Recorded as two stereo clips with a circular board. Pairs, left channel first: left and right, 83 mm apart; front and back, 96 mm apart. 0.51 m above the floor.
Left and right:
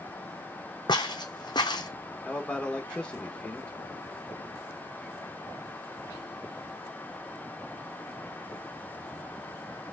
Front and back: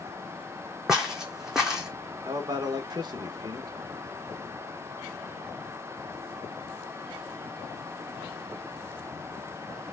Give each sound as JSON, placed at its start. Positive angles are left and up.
{"t": 0.9, "sound": "footsteps", "azimuth_deg": 95, "distance_m": 0.9}
{"t": 2.2, "sound": "a man speaking", "azimuth_deg": 165, "distance_m": 1.0}